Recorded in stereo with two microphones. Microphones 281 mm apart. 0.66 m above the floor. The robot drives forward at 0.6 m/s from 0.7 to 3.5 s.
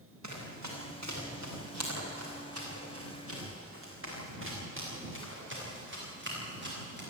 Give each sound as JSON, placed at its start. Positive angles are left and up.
{"t": 0.2, "sound": "running footsteps", "side_deg": -75, "distance_m": 7.0}